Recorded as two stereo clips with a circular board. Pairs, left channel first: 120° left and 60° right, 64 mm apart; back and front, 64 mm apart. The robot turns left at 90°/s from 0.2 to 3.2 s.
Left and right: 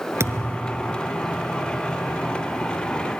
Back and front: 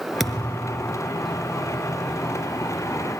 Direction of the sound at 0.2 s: 90° right.